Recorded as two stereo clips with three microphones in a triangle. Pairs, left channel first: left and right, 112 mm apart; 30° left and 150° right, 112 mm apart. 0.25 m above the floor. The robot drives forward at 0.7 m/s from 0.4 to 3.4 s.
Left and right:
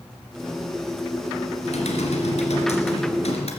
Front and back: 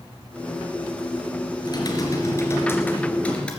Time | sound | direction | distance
1.6 | typing on a keyboard | 80° left | 2.5 m